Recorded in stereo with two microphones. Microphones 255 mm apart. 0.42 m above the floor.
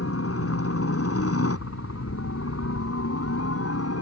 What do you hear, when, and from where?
0.0 s a helicopter: 65° left (ahead or behind)